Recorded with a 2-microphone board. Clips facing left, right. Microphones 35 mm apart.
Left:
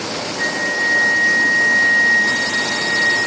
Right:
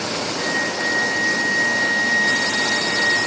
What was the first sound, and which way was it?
A flute, 40° right (ahead or behind).